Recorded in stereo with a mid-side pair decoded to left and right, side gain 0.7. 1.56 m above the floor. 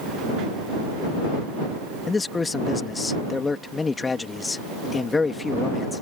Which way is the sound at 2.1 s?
20° left.